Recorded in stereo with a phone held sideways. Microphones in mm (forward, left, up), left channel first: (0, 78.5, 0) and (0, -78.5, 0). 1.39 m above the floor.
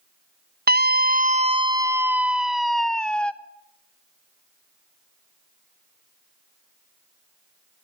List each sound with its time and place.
0.7 s a scream: 85° right, 0.6 m; by 3.3 s 10° left (ahead or behind), 1.4 m